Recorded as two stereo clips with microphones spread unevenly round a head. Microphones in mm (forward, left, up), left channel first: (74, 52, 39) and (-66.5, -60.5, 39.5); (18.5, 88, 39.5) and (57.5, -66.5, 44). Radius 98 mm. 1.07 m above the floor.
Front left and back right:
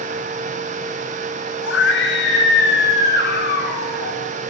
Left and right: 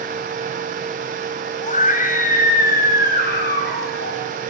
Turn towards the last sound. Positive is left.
turn(degrees=80)